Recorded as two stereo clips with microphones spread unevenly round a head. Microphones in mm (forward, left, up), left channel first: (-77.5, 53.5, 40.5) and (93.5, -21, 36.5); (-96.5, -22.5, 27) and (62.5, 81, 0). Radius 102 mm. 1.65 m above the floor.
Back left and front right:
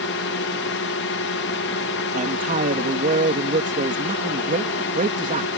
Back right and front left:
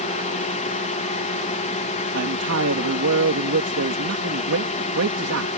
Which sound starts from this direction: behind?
A drone, at 0.0 s.